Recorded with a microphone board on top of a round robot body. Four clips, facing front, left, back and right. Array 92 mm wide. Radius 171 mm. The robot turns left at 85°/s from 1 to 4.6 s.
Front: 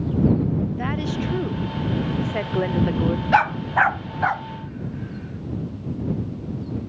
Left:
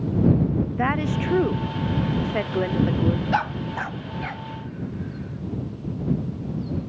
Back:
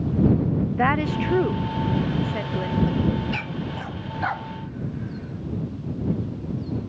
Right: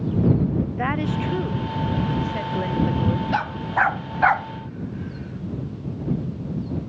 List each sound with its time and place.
0.8 s a woman speaking: 170° left; by 3.3 s 20° right
3.3 s a dog barking: 5° left; by 4.5 s 90° right